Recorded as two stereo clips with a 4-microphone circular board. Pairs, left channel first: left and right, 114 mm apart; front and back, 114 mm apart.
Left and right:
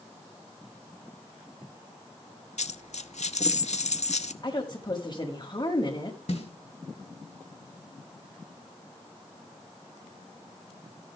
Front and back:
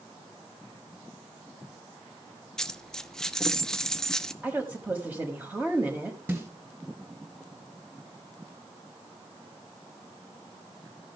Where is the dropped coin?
85° left, 0.5 m.